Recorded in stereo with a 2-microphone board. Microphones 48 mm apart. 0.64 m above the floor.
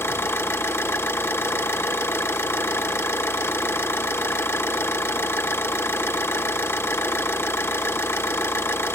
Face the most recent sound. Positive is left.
turn(degrees=60)  # may be behind; listen again after turning